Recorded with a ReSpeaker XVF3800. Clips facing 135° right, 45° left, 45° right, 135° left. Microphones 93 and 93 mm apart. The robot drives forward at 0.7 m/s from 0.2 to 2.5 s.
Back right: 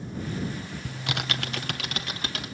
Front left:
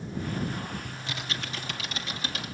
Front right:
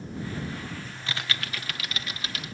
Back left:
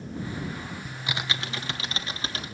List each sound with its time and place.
0.8 s typing on a keyboard: 145° right, 0.7 m; by 2.5 s 165° right, 1.7 m